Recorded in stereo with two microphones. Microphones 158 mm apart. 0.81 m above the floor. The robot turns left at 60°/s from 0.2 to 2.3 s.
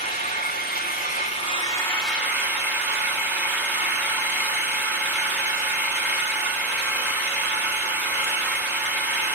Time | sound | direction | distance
0.0 | an engine running | 115° left | 1.9 m